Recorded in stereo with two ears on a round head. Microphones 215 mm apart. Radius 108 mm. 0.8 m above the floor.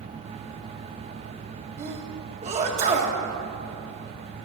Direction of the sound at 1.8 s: 30° right (ahead or behind).